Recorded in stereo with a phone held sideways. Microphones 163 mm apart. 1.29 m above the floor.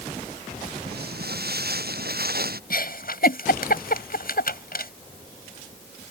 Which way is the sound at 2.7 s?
65° left (ahead or behind).